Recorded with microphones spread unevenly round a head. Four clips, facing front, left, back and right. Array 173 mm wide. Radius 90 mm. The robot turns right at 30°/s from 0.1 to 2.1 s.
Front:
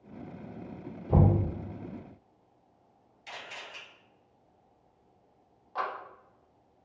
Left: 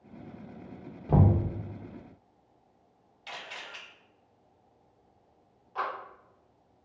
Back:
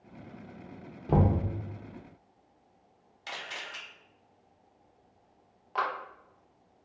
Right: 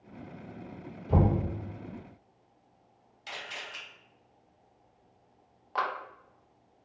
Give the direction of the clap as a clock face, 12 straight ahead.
4 o'clock.